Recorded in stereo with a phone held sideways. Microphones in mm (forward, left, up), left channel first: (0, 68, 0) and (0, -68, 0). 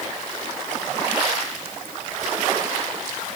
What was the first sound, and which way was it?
Only background noise.